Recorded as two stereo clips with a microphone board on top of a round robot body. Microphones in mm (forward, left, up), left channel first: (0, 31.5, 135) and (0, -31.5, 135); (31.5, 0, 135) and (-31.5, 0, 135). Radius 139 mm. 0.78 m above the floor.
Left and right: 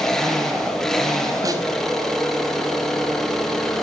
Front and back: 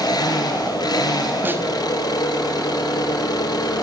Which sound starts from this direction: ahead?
An engine running, at 0.0 s.